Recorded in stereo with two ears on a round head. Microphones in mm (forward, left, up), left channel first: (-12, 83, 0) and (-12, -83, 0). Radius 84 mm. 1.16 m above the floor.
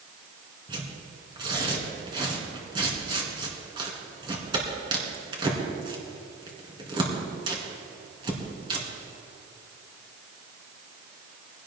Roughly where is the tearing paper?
Right.